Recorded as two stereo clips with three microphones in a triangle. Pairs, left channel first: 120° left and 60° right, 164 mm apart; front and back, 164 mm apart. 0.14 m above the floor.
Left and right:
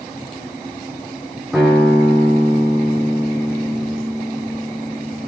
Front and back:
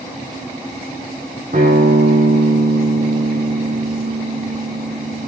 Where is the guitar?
145° right, 5.5 m.